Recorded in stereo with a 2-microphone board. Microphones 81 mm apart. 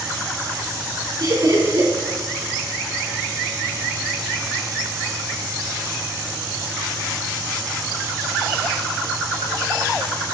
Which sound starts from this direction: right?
Laughter, at 1.2 s.